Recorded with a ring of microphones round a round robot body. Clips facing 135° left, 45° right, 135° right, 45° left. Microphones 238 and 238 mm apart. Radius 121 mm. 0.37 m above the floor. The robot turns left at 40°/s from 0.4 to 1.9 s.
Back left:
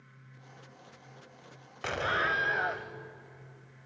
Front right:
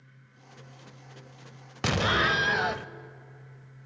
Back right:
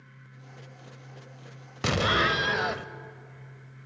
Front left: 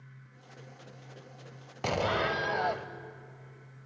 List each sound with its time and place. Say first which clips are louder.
1.8 s an explosion: front right 7 dB, back right 3 dB; 70° right, 0.7 m; by 2.9 s 75° right, 0.7 m